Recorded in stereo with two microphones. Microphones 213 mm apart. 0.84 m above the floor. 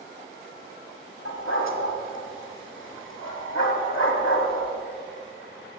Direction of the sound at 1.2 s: 70° left (ahead or behind).